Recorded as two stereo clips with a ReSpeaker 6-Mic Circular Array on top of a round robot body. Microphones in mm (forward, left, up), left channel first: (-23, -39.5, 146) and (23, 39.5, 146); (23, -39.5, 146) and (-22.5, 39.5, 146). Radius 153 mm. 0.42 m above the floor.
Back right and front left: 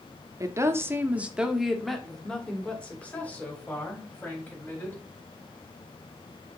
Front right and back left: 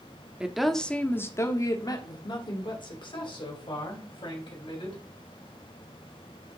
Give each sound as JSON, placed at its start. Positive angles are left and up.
{"t": 0.4, "sound": "a woman speaking", "azimuth_deg": 45, "distance_m": 1.0}